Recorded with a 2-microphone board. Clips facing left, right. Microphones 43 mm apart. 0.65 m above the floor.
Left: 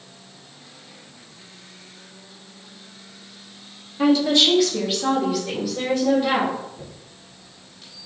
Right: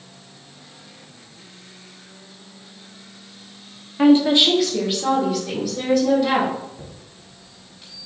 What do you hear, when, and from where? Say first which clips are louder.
4.0 s a woman speaking: right 3 dB; 40° right (ahead or behind), 1.0 m; by 6.5 s 15° left (ahead or behind), 3.5 m
6.8 s a chime: even; 5° right (ahead or behind), 2.5 m